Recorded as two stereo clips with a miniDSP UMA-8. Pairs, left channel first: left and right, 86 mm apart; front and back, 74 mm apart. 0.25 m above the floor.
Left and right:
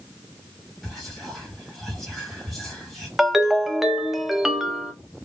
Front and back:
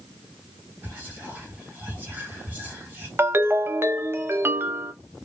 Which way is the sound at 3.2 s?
175° right.